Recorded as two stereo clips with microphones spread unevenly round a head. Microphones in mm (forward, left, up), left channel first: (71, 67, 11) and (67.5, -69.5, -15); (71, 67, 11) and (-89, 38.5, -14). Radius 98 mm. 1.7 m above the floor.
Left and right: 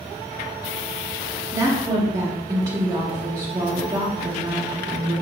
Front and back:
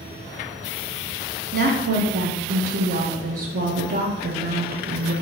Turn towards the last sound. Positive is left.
turn(degrees=-160)